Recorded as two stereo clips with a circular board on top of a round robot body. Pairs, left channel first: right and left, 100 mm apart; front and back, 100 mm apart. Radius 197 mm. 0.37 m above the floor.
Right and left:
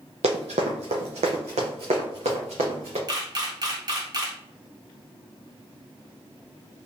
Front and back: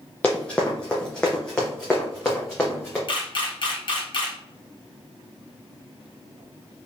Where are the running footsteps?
80° left, 0.6 m; by 3.0 s 85° left, 2 m.